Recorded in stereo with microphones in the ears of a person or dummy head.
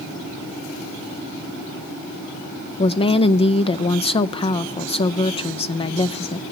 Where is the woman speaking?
30° left (ahead or behind), 0.6 m.